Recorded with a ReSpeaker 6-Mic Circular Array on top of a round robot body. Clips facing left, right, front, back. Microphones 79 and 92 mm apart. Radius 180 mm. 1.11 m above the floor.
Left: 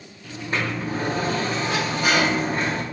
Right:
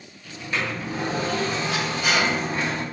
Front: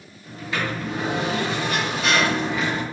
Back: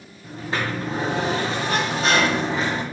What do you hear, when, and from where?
0.2 s a sliding door: 130° left, 0.7 m